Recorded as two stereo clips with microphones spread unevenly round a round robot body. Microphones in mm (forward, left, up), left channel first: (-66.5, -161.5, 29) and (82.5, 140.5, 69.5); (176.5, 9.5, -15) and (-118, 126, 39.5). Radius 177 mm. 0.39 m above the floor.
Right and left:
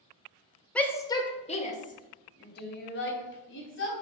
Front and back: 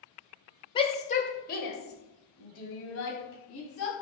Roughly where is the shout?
Ahead right.